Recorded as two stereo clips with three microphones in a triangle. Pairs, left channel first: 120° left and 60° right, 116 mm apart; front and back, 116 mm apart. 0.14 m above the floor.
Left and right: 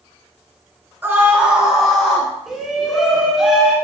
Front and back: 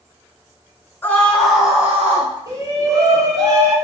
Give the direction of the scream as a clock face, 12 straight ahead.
1 o'clock.